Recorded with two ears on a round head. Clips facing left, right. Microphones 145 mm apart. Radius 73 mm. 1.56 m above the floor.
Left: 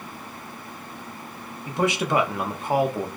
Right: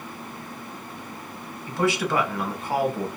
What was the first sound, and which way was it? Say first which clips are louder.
A man speaking: even; 20° left (ahead or behind).